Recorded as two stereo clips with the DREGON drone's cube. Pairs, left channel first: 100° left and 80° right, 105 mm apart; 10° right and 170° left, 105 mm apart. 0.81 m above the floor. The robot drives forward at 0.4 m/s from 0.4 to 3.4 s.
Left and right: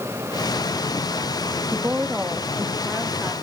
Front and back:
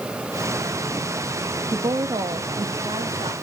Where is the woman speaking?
145° right, 0.5 m; by 3.3 s 165° right, 1.1 m.